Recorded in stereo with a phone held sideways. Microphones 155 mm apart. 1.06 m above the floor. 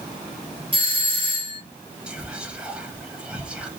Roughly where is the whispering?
Centre.